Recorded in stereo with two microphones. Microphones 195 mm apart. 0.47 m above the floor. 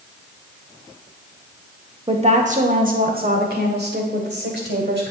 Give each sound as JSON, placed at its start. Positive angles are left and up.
{"t": 2.1, "sound": "a woman speaking", "side_deg": -30, "distance_m": 0.9}